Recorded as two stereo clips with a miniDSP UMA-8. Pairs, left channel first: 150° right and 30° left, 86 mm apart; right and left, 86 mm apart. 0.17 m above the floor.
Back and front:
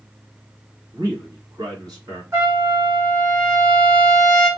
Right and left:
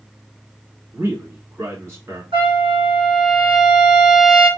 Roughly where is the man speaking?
Ahead left.